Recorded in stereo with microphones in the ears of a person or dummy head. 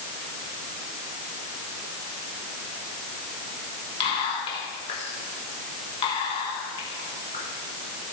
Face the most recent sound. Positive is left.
turn(degrees=30)  # may be behind; listen again after turning